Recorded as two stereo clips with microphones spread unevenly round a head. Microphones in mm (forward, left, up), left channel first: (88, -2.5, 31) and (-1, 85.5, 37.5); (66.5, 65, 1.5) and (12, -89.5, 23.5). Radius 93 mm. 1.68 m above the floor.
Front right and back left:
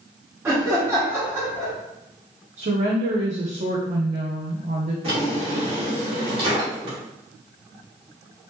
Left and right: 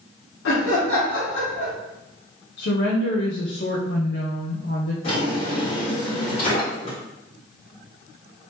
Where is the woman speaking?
110° left, 0.7 m.